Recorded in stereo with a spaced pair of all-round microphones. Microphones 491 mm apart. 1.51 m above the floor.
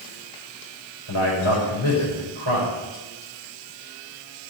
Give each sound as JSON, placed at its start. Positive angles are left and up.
{"t": 1.1, "sound": "a man speaking", "side_deg": 70, "distance_m": 5.5}